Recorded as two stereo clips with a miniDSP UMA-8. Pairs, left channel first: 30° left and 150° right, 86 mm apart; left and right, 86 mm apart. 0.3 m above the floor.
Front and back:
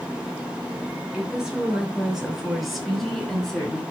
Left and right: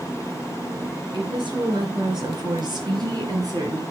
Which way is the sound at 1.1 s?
70° right.